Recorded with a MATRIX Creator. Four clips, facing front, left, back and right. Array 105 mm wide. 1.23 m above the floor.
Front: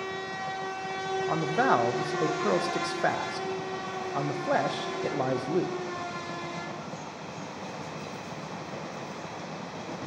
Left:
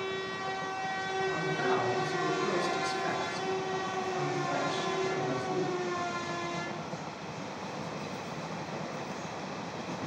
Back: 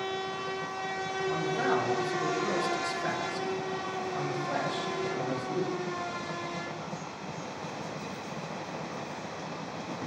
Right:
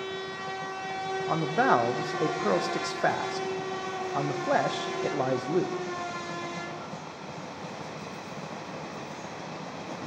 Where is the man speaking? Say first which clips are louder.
Right 9 dB, front 4 dB; 55° right, 1.1 m.